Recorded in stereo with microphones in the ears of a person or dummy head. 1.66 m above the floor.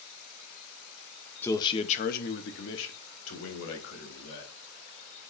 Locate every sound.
1.4 s a man speaking: 10° left (ahead or behind), 0.9 m; by 4.5 s 80° left, 2.5 m